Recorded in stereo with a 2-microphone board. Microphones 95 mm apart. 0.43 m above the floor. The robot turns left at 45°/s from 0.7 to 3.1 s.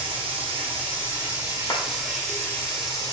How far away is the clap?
About 1.1 m.